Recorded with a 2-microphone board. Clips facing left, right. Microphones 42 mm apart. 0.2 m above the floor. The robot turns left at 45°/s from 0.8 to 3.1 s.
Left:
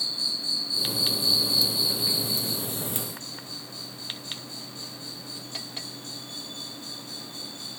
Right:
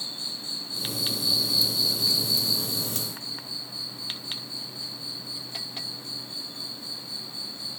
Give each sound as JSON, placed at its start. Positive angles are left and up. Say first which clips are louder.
{"t": 0.0, "sound": "an insect", "louder": "left 5 dB", "azimuth_deg": -140}